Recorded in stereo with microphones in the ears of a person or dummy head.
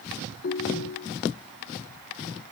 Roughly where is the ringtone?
Left.